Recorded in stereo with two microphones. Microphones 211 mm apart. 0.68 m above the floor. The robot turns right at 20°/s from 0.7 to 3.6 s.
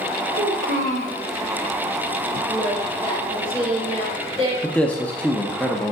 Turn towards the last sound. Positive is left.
turn(degrees=5)  # may be behind; listen again after turning